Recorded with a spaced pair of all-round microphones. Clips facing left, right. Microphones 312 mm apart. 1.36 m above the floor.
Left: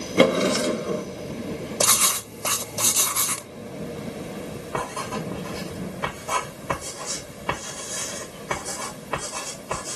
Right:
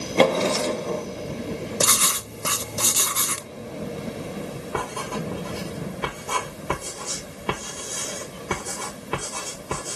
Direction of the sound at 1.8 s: 20° right (ahead or behind).